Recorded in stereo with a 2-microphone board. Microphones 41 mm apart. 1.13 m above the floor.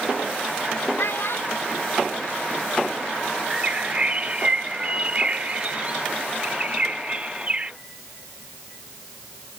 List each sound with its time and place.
1.0 s a child speaking: 85° left; by 3.0 s 80° left
3.5 s a bird: 30° right (ahead or behind)